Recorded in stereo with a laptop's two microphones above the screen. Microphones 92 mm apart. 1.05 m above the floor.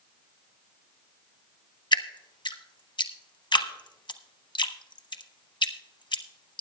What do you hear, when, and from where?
1.9 s dripping: 60° left (ahead or behind), 0.8 m